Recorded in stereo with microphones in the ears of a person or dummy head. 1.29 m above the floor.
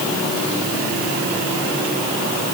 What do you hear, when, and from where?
Only background noise.